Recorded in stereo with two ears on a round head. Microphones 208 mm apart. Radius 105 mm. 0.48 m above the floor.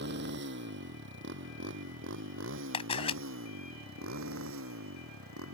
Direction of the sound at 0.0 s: 50° right (ahead or behind).